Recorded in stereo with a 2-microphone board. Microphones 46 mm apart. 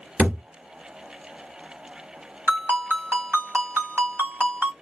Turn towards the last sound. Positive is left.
turn(degrees=-70)  # may be behind; listen again after turning